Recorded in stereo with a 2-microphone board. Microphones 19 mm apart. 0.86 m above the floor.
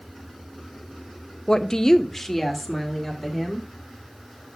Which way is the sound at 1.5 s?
45° left (ahead or behind).